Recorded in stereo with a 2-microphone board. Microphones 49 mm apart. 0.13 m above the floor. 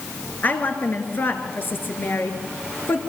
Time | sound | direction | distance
0.4 | a woman speaking | 40° left (ahead or behind) | 2.5 m